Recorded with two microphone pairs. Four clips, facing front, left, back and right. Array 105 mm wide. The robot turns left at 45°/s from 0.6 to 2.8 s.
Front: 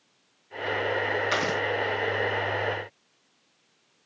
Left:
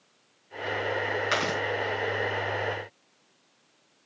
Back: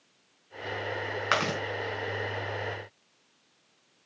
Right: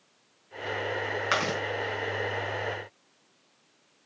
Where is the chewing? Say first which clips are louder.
Right 2 dB, front 1 dB; 165° right, 4.5 m; by 1.6 s 175° right, 4.5 m.